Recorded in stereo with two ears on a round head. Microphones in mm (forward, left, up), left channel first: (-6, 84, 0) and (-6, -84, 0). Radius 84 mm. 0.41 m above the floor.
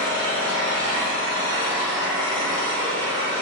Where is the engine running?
10° left (ahead or behind), 1.1 m.